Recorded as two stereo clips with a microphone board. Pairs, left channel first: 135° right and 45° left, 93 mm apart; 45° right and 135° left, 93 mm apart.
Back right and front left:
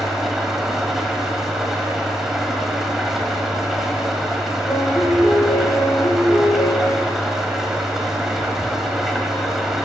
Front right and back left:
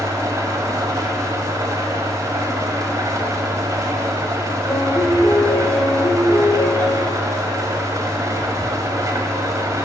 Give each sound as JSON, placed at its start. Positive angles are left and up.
{"t": 0.0, "sound": "an engine running", "azimuth_deg": 130, "distance_m": 1.3}
{"t": 4.7, "sound": "a piano", "azimuth_deg": -95, "distance_m": 5.0}